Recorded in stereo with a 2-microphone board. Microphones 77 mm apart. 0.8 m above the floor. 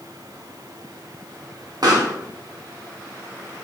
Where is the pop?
55° right (ahead or behind), 0.8 m.